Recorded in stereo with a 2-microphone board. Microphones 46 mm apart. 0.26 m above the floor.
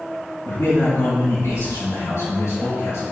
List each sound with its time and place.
0.5 s a man speaking: 65° left (ahead or behind), 3 m; by 3.0 s 70° left (ahead or behind), 4.5 m